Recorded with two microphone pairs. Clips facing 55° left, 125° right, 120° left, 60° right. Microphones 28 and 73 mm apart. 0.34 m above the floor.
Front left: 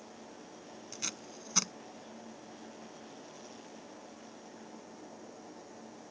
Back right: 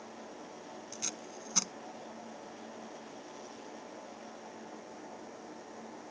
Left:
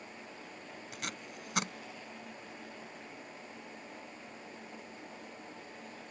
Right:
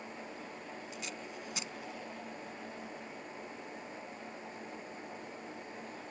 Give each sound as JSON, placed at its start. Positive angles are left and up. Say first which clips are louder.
{"t": 0.9, "sound": "tape being pulled", "louder": "front left 2 dB, even", "azimuth_deg": 125}